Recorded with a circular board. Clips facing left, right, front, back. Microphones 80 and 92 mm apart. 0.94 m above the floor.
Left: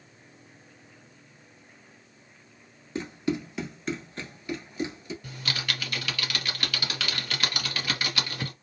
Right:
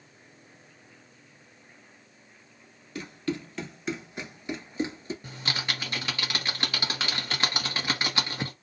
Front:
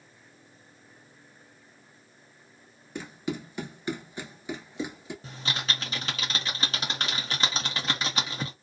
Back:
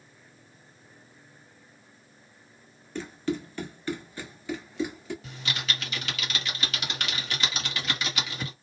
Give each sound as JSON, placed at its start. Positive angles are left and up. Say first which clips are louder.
{"t": 3.0, "sound": "running footsteps", "louder": "left 3 dB, back 3 dB", "azimuth_deg": 70, "distance_m": 1.0}
{"t": 5.2, "sound": "typing on a keyboard", "louder": "left 1 dB, front 1 dB", "azimuth_deg": -40, "distance_m": 1.0}